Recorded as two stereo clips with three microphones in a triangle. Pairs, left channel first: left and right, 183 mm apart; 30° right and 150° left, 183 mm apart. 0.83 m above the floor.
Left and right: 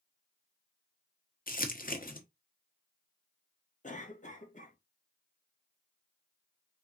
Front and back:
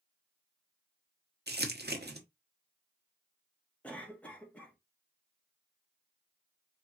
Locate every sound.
1.5 s crumpling: 125° left, 1.0 m
3.8 s a cough: 50° left, 1.5 m